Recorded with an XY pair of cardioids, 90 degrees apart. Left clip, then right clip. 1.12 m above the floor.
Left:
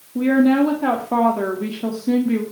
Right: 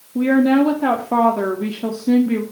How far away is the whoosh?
No whoosh in this recording.